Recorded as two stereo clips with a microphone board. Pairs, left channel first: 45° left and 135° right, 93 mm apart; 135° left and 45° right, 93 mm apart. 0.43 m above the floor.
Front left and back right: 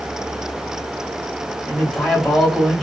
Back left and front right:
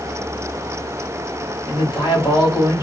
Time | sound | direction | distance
1.7 | a man speaking | 130° left | 1.4 m